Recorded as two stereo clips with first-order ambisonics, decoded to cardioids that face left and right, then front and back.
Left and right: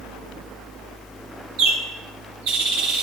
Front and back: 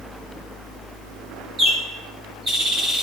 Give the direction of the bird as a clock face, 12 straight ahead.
4 o'clock.